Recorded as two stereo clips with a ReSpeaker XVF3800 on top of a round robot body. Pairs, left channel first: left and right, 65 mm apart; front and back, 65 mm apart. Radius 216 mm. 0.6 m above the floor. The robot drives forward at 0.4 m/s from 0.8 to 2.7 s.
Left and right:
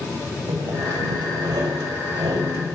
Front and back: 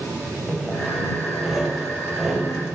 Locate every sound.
0.5 s sawing: 90° right, 4 m; by 2.8 s 100° right, 4 m